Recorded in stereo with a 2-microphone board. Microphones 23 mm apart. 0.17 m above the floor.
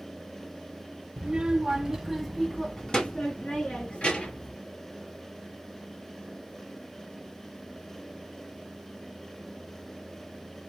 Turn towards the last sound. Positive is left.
turn(degrees=70)  # may be behind; listen again after turning